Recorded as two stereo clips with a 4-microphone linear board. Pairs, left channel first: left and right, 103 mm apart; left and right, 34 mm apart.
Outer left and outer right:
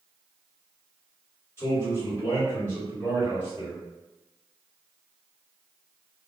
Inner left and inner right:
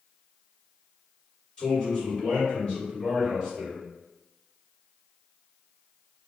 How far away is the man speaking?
About 1.8 m.